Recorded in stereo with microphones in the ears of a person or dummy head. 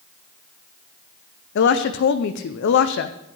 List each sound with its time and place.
1.6 s a woman speaking: 65° left (ahead or behind), 0.6 m